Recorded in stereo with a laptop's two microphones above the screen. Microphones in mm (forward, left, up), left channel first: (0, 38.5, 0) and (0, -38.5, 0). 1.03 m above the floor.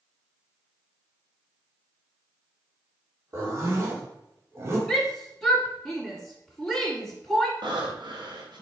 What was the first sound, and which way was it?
A zipper, 35° right (ahead or behind).